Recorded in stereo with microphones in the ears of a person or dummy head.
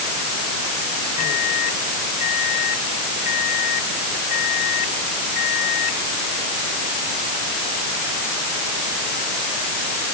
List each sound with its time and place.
1.2 s a microwave: 45° left (ahead or behind)